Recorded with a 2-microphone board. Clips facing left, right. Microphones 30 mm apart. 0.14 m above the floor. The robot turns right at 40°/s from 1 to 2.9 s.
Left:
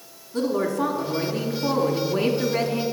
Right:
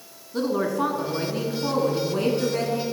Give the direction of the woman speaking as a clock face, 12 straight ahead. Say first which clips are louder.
Left 1 dB; 1 o'clock.